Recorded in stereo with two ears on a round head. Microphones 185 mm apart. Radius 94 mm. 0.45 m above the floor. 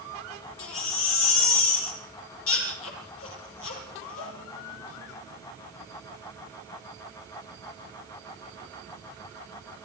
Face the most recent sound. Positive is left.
turn(degrees=80)